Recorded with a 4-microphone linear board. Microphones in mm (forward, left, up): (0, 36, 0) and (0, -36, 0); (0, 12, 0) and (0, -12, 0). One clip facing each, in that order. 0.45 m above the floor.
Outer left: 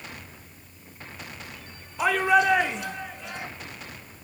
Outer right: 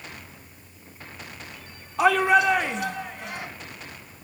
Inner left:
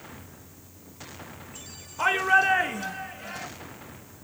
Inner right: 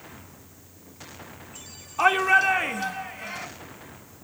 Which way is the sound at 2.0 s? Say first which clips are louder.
Outer right 2 dB, inner right 2 dB; 75° right (ahead or behind).